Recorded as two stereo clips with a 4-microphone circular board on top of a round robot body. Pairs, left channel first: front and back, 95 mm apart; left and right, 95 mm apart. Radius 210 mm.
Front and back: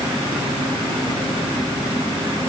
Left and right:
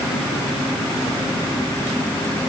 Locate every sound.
Only background noise.